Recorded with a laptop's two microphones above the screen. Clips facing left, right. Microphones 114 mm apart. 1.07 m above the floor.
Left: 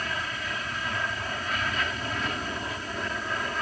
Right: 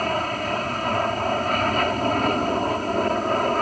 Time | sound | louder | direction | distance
0.0 | an aircraft | right 10 dB | 50° right (ahead or behind) | ?